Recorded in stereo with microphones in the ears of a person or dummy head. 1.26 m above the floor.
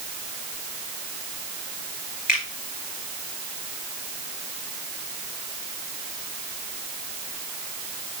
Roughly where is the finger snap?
Left.